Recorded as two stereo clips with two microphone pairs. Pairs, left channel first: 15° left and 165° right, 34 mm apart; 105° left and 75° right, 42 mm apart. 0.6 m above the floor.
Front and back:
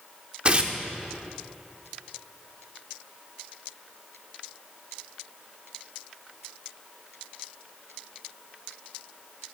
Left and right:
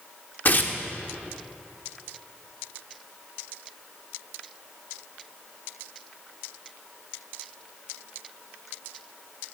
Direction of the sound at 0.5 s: 145° left.